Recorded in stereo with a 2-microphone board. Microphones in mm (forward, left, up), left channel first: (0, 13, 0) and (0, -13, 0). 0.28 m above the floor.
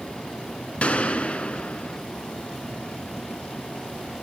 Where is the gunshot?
55° left (ahead or behind), 0.7 m.